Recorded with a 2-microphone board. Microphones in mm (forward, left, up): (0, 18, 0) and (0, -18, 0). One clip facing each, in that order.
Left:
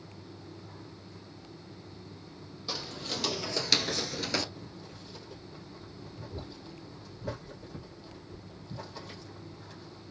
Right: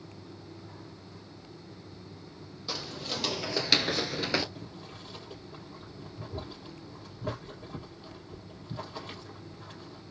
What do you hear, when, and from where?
2.7 s footsteps: 5° right (ahead or behind), 1.7 m; by 4.5 s 20° right (ahead or behind), 0.8 m
4.5 s boiling: 60° right (ahead or behind), 4 m